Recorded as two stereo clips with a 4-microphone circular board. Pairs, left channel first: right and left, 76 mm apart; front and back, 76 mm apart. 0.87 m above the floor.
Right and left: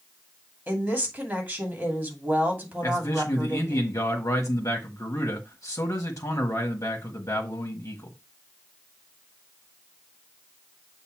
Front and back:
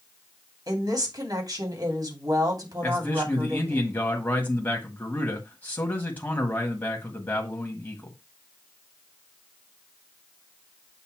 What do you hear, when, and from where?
0.7 s a woman speaking: 155° left, 2.5 m
2.8 s a man speaking: 60° right, 1.5 m